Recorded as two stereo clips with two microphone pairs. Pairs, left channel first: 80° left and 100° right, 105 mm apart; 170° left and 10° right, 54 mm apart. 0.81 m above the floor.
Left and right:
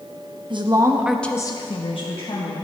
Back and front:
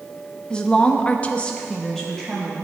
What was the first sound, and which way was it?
A woman speaking, 120° right.